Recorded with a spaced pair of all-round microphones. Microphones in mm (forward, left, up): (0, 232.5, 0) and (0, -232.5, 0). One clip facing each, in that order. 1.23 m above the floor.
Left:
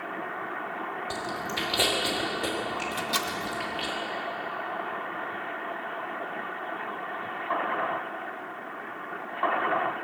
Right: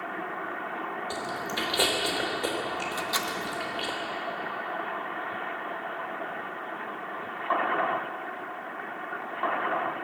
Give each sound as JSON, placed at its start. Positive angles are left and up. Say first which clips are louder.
{"t": 1.1, "sound": "chewing", "louder": "even", "side_deg": 45, "distance_m": 3.0}
{"t": 2.9, "sound": "a microwave", "louder": "left 1 dB", "side_deg": 50, "distance_m": 1.3}